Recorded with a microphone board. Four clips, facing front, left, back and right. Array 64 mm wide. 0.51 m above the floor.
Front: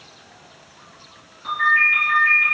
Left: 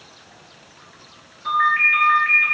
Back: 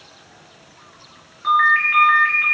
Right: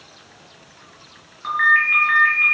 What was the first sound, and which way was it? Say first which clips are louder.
A ringtone: right 1 dB, back 2 dB; 130° right.